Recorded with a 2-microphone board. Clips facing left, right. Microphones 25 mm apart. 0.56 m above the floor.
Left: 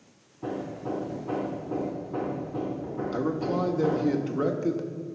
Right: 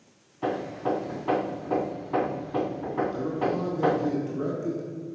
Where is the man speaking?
40° left (ahead or behind), 1.1 m.